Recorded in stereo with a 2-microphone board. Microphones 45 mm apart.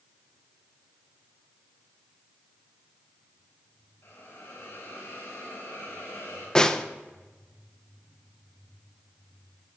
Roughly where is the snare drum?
Centre.